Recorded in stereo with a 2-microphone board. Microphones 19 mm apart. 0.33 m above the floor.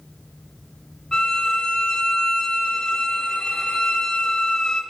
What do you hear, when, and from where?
1.1 s a violin: 40° left (ahead or behind), 1.1 m